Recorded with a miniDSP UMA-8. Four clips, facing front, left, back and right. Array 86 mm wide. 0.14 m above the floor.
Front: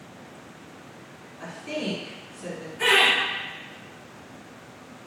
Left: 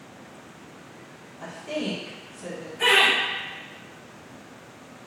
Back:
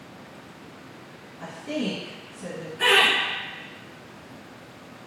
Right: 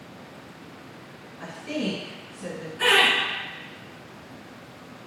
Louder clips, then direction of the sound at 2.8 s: Even, back 1 dB; 120° right.